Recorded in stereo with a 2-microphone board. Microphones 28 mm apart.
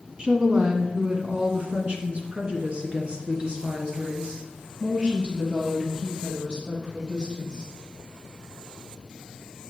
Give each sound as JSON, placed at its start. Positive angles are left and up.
{"t": 0.2, "sound": "a woman speaking", "side_deg": -35, "distance_m": 1.3}